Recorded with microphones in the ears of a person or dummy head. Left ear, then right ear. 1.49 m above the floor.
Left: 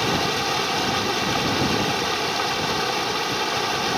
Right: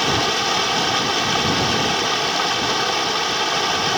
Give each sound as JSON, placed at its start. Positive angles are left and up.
{"t": 0.0, "sound": "running water", "side_deg": -20}